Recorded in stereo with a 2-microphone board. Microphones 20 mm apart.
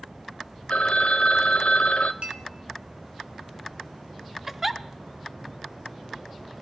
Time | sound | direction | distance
0.7 | a phone ringing | 65° left (ahead or behind) | 0.5 m
2.2 | a clink | 70° right (ahead or behind) | 1.4 m
4.5 | a giggle | 15° right (ahead or behind) | 0.6 m